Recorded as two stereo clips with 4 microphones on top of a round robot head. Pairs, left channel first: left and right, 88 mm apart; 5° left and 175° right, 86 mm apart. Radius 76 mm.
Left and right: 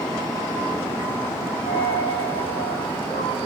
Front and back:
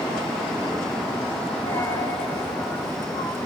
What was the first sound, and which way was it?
A dropped coin, 65° left.